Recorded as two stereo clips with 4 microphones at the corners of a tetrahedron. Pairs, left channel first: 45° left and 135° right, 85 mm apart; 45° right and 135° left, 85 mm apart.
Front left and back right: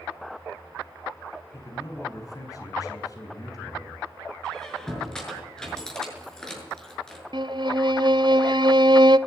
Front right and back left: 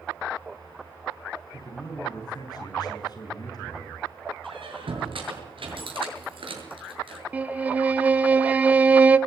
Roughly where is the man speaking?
Ahead.